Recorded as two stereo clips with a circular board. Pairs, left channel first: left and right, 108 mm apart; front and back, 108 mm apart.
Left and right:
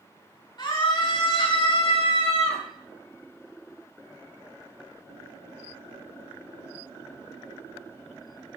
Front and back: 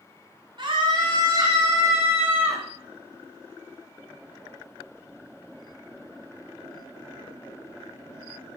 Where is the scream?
135° left, 4.5 m; by 2.6 s 105° left, 4 m.